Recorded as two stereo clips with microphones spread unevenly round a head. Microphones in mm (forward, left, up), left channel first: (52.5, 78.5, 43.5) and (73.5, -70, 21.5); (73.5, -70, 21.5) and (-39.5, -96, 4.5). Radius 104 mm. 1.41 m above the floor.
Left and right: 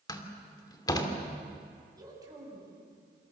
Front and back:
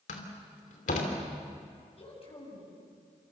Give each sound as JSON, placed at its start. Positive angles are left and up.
{"t": 0.1, "sound": "a door slam", "azimuth_deg": 40, "distance_m": 3.0}
{"t": 1.9, "sound": "a woman speaking", "azimuth_deg": -15, "distance_m": 8.0}